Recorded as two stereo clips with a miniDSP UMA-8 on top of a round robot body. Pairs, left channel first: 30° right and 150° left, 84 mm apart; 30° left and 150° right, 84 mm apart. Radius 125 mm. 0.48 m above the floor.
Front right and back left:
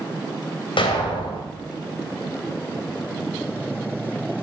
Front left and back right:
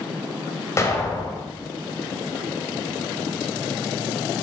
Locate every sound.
0.8 s an explosion: 25° right, 2.5 m